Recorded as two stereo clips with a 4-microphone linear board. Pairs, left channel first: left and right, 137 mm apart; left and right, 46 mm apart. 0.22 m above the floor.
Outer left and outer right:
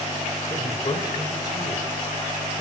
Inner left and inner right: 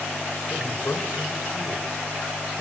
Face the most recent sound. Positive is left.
turn(degrees=50)  # may be behind; listen again after turning